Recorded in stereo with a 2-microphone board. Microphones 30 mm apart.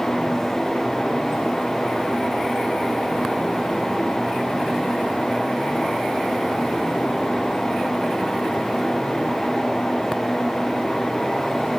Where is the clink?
I don't hear a clink.